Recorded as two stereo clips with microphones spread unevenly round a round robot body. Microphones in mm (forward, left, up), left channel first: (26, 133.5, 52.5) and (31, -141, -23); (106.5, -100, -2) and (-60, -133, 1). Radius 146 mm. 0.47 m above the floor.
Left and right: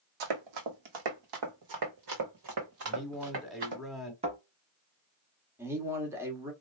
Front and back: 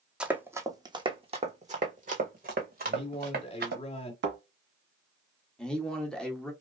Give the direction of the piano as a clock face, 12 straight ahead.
I don't hear a piano.